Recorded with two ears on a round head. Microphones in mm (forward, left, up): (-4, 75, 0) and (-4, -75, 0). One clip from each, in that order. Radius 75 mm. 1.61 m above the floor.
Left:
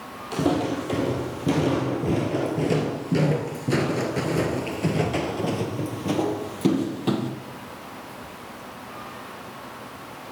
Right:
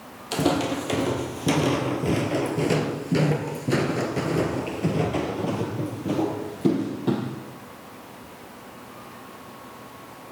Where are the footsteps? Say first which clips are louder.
Right 1 dB; 45° right (ahead or behind), 3 m; by 7.3 s 55° left (ahead or behind), 3 m.